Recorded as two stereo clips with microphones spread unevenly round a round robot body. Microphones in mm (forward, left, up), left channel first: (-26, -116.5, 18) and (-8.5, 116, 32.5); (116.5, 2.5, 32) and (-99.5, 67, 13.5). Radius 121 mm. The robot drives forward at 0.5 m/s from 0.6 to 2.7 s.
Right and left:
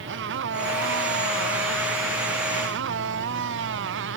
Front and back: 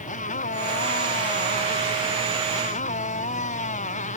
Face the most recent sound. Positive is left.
turn(degrees=40)